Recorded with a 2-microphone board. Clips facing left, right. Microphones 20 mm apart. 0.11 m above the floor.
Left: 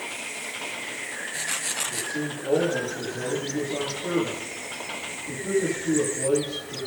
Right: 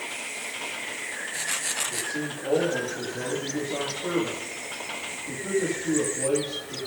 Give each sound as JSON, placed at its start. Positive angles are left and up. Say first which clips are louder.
{"t": 1.9, "sound": "a man speaking", "louder": "left 1 dB", "side_deg": -75, "distance_m": 10.0}